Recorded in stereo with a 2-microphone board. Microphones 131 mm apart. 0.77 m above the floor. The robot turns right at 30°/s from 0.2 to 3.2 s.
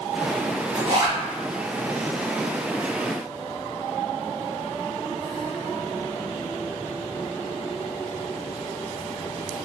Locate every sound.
0.8 s a zipper: 40° right (ahead or behind), 1.1 m; by 1.2 s 45° right (ahead or behind), 1.1 m